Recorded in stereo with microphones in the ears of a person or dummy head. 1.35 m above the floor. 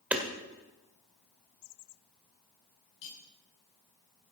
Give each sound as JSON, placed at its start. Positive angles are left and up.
{"t": 0.1, "sound": "hammering", "side_deg": -10, "distance_m": 1.9}
{"t": 3.0, "sound": "cutlery clinking", "side_deg": 70, "distance_m": 6.5}